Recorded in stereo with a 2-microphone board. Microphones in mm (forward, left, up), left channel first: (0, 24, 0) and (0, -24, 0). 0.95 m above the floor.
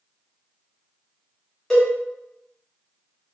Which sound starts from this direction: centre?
A cowbell, at 1.7 s.